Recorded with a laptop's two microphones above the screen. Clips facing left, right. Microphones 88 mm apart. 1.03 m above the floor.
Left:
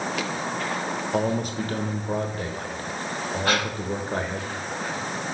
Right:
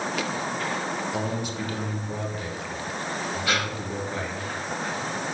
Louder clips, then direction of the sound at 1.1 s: Left 4 dB; 45° left (ahead or behind).